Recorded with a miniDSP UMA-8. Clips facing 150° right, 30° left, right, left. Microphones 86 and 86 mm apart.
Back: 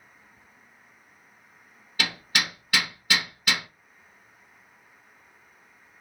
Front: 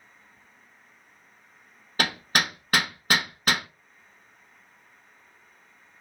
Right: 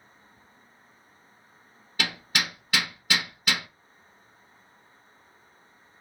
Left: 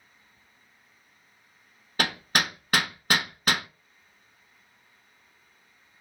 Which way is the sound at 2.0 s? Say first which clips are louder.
Front 3 dB, left 3 dB; 65° left.